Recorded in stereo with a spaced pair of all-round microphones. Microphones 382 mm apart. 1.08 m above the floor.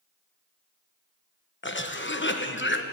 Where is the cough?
30° left (ahead or behind), 1.0 m.